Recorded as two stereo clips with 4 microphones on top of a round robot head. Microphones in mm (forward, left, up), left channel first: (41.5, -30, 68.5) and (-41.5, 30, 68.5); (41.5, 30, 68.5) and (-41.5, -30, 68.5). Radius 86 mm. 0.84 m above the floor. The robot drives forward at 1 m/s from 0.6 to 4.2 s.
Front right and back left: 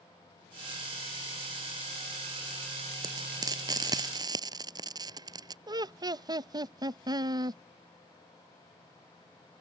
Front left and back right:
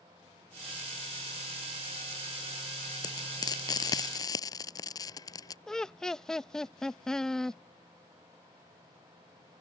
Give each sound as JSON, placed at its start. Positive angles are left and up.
{"t": 3.0, "sound": "frying", "azimuth_deg": 90}
{"t": 5.7, "sound": "laughter", "azimuth_deg": 120}